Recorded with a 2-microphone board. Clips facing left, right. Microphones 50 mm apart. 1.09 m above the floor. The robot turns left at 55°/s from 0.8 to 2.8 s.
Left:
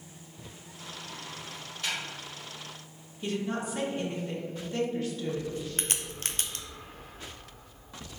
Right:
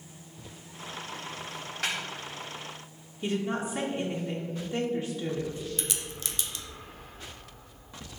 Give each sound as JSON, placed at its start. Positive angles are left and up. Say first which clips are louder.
{"t": 1.8, "sound": "a snare drum", "louder": "right 2 dB", "side_deg": -80, "distance_m": 2.0}
{"t": 3.2, "sound": "a woman speaking", "louder": "right 2 dB", "side_deg": -10, "distance_m": 1.2}
{"t": 5.8, "sound": "a crack", "louder": "left 1 dB", "side_deg": 45, "distance_m": 0.7}